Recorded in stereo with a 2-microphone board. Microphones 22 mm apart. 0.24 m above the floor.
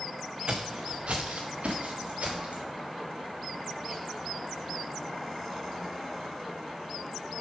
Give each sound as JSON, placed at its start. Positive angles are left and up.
{"t": 0.5, "sound": "footsteps", "side_deg": -55, "distance_m": 1.2}